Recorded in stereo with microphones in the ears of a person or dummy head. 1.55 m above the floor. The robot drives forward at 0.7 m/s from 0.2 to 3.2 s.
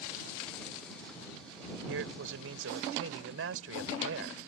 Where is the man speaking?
80° right; by 4.4 s 85° right.